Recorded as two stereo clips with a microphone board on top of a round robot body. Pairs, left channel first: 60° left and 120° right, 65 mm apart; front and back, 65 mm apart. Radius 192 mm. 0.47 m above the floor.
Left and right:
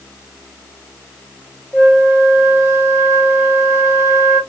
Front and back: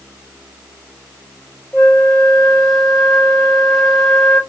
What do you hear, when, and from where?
1.7 s a flute: 80° right, 1.8 m